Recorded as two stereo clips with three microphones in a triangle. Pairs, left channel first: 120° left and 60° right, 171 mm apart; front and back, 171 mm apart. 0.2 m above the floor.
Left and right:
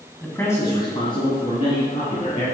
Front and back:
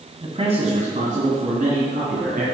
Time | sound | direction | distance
0.2 | a man speaking | 165° right | 1.5 m